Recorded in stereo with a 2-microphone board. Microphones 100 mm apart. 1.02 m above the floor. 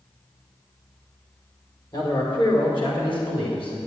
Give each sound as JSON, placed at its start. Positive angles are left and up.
{"t": 1.9, "sound": "a man speaking", "side_deg": 50, "distance_m": 3.0}